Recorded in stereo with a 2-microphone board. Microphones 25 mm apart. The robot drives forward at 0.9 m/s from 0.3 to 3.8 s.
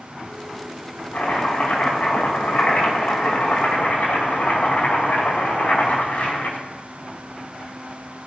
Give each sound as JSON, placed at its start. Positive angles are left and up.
{"t": 1.1, "sound": "chopping", "side_deg": 80, "distance_m": 6.0}